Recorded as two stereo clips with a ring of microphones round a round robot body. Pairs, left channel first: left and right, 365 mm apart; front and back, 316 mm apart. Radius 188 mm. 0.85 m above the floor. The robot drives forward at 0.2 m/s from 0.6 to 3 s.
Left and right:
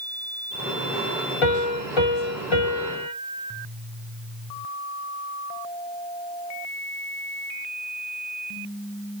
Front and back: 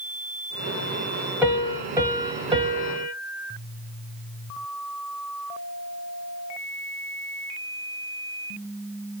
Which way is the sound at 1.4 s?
95° left.